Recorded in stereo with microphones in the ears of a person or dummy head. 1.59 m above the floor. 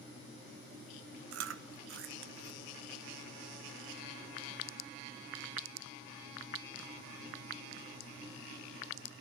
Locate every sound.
1.3 s chewing: 80° right, 1.0 m